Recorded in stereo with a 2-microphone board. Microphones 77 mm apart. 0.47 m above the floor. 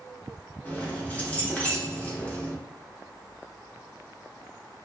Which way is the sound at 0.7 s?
20° left (ahead or behind).